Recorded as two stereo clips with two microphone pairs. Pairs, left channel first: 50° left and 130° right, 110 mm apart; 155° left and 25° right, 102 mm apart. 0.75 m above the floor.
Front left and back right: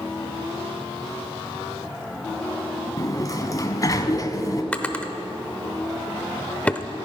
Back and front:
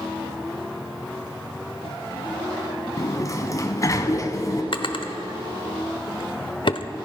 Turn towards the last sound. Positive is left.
turn(degrees=125)